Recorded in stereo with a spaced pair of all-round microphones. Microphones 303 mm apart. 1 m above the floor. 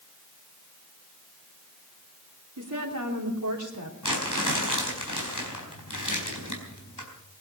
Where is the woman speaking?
80° right, 3 m.